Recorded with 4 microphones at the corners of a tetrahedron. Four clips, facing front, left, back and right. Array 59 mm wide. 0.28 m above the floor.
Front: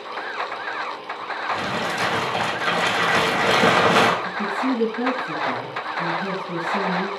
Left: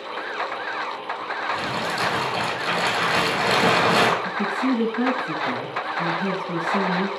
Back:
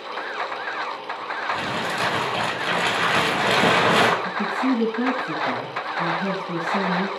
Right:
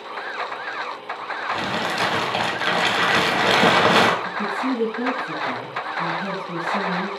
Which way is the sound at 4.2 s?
130° left.